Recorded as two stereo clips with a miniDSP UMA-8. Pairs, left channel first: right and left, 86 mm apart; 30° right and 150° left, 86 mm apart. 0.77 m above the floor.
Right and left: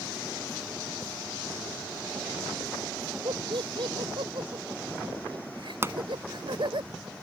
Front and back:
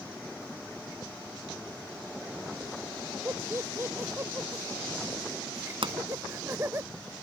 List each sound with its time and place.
3.2 s laughter: 90° left
5.8 s a pop: 150° left